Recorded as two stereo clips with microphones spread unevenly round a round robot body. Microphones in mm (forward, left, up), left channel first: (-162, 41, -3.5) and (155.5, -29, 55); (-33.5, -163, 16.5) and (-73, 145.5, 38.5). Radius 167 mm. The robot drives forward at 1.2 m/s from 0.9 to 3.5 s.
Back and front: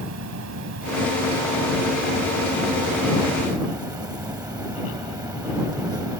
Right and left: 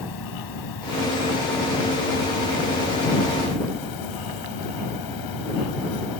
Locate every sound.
0.0 s an insect: 60° right; by 6.2 s 95° right